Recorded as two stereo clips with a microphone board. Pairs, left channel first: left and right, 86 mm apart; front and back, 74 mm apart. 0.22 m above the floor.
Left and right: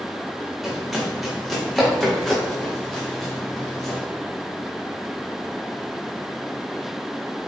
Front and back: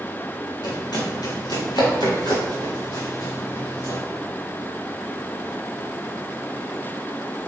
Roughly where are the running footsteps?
Ahead.